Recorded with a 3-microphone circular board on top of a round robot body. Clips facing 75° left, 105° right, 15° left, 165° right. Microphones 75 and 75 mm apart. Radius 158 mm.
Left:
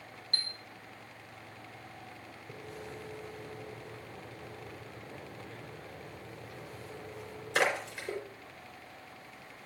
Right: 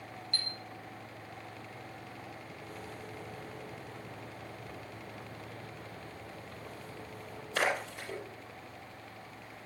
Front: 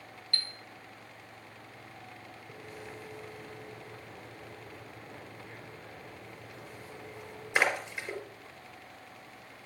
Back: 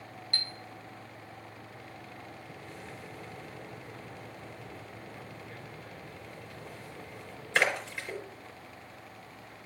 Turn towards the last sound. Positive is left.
turn(degrees=95)